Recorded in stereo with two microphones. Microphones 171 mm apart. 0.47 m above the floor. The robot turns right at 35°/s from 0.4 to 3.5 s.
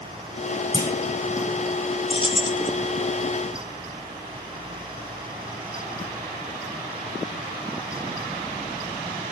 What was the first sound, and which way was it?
A clunk, 25° left (ahead or behind).